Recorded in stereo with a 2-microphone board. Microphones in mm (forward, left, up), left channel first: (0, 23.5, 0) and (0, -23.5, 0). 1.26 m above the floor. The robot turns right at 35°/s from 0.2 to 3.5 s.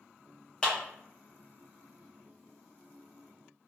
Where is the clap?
15° left (ahead or behind), 0.9 m.